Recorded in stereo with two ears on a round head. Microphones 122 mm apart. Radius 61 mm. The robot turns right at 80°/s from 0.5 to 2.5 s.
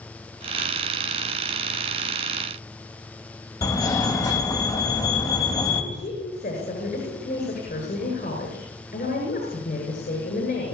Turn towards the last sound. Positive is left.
turn(degrees=80)